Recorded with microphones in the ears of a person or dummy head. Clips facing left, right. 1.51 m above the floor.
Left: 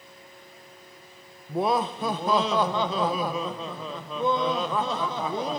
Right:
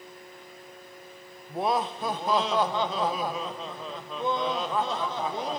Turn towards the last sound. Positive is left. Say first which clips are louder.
# left 2 dB
turn(degrees=60)  # may be behind; listen again after turning